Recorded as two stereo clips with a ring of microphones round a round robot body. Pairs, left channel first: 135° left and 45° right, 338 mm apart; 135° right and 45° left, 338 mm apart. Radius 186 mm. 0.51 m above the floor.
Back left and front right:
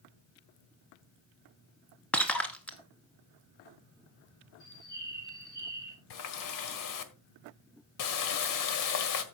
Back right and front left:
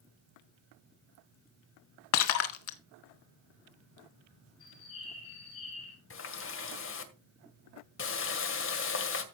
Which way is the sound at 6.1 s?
170° left.